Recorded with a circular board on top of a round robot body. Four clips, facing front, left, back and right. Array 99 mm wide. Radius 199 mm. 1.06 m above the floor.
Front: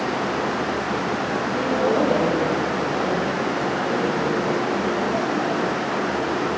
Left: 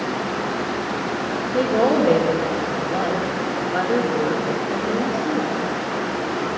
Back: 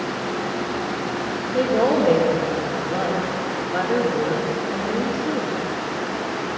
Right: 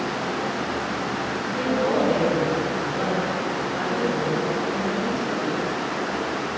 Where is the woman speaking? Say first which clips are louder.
Left 5 dB, back 3 dB; 105° left, 4.5 m.